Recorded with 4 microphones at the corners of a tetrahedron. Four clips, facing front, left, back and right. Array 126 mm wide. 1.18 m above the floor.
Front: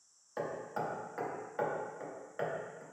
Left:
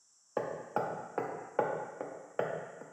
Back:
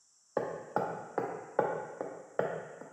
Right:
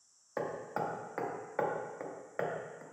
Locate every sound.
0.4 s hammering: 165° left, 0.7 m